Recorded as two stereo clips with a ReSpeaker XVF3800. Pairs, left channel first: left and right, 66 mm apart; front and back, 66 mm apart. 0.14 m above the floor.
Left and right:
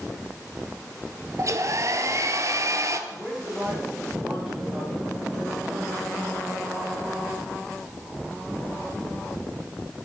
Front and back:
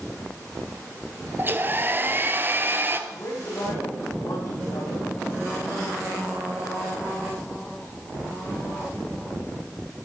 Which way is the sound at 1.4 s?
125° right.